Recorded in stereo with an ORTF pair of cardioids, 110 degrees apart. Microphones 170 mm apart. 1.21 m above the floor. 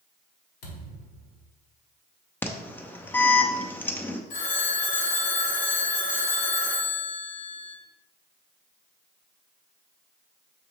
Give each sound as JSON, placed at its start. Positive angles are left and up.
{"t": 0.6, "sound": "a thud", "azimuth_deg": 70, "distance_m": 1.6}
{"t": 2.4, "sound": "an alarm", "azimuth_deg": 10, "distance_m": 0.6}
{"t": 4.3, "sound": "a phone ringing", "azimuth_deg": 50, "distance_m": 1.3}